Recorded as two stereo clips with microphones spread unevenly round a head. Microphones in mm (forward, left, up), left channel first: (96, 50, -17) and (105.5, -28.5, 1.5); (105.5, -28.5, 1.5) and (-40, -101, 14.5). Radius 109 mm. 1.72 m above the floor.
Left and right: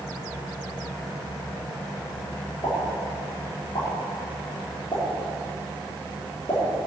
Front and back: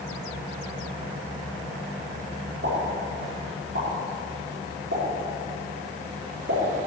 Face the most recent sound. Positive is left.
turn(degrees=165)